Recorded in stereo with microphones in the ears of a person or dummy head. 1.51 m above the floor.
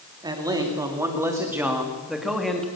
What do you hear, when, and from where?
0.2 s a man speaking: 10° right (ahead or behind), 3.5 m; by 2.7 s 10° left (ahead or behind), 2.5 m